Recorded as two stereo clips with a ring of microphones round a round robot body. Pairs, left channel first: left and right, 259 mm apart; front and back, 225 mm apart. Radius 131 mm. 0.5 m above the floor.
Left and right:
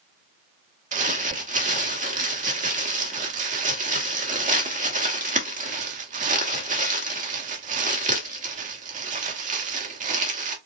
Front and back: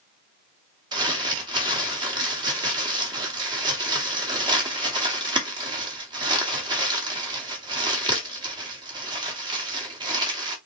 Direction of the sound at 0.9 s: 125° right.